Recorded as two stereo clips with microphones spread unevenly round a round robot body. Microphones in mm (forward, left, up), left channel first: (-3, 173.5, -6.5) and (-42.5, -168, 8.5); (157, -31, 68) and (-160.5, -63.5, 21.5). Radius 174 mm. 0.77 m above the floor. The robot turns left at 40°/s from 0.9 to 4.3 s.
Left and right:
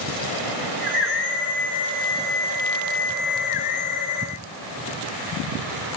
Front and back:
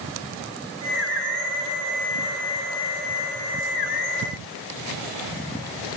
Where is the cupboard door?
I don't hear a cupboard door.